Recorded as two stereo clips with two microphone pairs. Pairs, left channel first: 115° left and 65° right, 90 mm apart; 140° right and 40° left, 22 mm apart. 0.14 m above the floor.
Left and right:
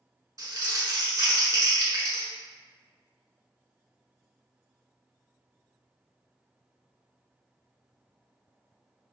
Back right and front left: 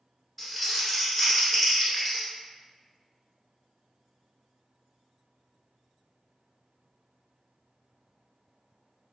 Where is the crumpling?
60° right, 1.3 m.